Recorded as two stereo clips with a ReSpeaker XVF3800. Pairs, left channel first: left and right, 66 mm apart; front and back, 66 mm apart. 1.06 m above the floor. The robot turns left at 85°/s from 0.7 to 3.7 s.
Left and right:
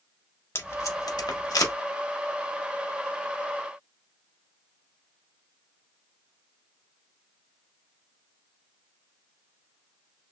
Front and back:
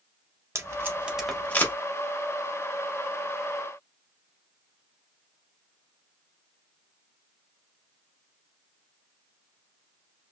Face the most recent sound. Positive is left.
turn(degrees=-115)